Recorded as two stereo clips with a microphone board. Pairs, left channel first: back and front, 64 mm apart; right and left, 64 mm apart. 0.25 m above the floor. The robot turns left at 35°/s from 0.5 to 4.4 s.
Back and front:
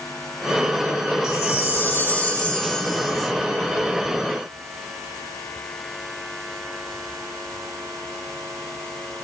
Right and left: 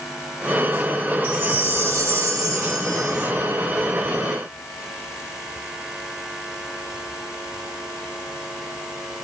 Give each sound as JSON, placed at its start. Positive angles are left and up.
{"t": 1.2, "sound": "a chime", "azimuth_deg": 150, "distance_m": 0.7}